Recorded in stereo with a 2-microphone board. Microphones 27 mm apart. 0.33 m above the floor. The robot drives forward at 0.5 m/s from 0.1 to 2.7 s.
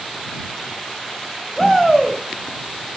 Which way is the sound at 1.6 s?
Centre (ahead or behind).